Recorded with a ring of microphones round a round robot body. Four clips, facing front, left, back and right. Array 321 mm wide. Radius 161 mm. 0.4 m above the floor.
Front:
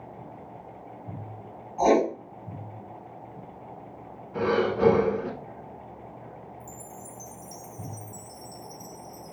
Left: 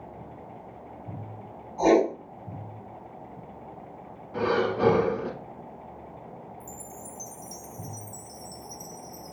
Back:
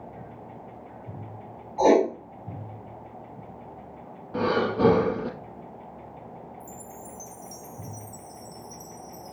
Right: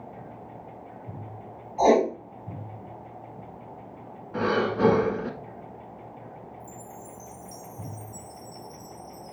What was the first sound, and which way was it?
Writing, 155° right.